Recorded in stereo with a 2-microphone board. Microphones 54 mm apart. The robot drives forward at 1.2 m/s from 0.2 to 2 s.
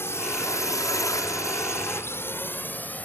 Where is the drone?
50° left (ahead or behind); by 3.0 s 30° left (ahead or behind).